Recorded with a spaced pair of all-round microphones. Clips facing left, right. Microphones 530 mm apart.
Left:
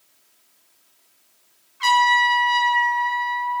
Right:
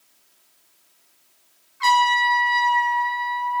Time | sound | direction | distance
1.8 | a trumpet | 55° left (ahead or behind) | 0.6 m